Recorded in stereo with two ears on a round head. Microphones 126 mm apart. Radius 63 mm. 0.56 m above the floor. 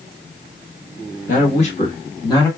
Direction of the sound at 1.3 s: 55° left (ahead or behind).